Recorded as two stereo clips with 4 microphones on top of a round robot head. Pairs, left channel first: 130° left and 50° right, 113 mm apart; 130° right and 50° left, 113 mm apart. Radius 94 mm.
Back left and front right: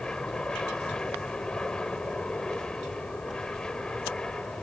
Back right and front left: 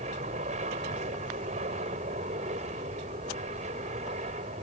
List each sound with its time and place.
0.0 s an aircraft: 50° left